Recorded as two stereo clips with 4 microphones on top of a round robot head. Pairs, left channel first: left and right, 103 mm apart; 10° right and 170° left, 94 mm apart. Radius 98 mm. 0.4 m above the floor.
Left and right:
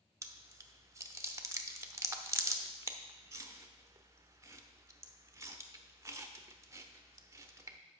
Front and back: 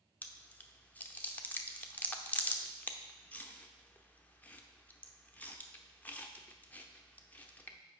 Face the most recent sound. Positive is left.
turn(degrees=-65)